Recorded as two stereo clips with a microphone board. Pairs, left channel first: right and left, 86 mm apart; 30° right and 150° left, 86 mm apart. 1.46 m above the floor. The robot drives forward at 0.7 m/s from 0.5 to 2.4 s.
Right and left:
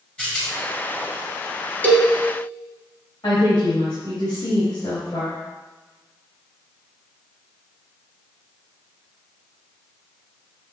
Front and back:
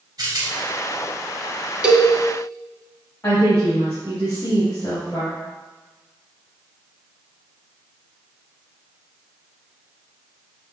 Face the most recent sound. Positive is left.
turn(degrees=-90)